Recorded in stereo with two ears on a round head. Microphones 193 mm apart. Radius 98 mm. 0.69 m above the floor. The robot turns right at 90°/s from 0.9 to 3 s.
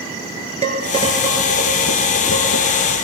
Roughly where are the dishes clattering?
Right.